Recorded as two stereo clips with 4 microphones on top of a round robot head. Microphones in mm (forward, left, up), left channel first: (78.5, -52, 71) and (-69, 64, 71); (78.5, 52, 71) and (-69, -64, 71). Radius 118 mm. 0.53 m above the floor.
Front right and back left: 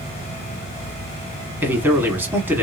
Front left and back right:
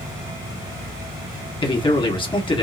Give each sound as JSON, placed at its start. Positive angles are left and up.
{"t": 1.6, "sound": "a man speaking", "azimuth_deg": 70, "distance_m": 1.4}